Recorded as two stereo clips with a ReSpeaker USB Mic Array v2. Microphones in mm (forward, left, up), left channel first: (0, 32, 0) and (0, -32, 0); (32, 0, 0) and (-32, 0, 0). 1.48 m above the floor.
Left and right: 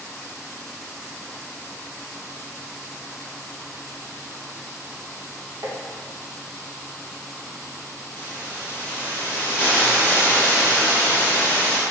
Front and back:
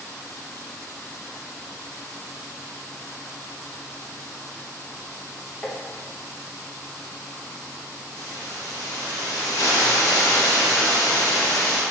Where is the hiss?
25° right, 1.4 m.